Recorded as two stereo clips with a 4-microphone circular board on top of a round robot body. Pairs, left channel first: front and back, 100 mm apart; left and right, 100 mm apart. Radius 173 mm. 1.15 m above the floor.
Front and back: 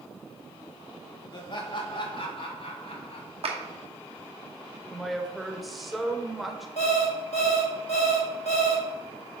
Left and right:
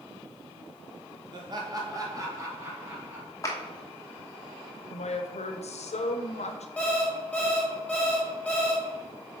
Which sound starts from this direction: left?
A woman speaking, at 4.9 s.